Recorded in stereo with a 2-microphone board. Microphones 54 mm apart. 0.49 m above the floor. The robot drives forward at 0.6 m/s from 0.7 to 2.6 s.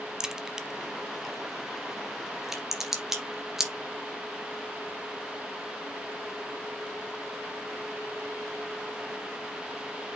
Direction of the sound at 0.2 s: 10° right (ahead or behind).